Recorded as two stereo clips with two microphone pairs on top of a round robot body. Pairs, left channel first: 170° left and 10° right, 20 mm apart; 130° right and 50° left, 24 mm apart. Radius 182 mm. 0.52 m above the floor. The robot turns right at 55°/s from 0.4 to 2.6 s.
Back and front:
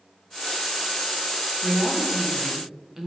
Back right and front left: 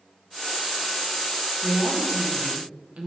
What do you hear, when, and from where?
1.6 s a woman speaking: 10° right, 1.6 m; by 3.1 s 45° left, 1.6 m